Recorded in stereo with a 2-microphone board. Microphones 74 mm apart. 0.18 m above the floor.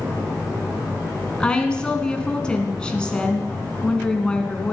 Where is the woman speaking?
10° left (ahead or behind), 2 m.